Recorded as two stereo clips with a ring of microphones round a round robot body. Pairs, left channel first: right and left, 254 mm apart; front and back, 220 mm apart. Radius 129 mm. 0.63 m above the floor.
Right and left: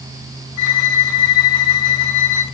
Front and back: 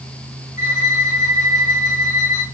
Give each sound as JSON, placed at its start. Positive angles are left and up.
{"t": 0.6, "sound": "a violin", "azimuth_deg": -65, "distance_m": 4.0}